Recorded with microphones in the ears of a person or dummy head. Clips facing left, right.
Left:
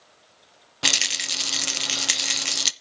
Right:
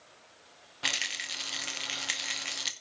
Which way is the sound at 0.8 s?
50° left (ahead or behind).